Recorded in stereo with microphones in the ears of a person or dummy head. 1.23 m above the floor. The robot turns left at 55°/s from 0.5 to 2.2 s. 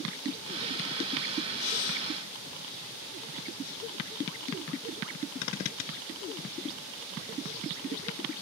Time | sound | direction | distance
1.6 | breathing | 85° left | ?